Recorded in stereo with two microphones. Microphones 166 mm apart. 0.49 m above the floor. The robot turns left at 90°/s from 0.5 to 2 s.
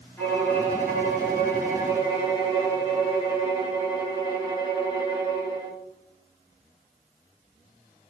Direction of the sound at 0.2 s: 160° left.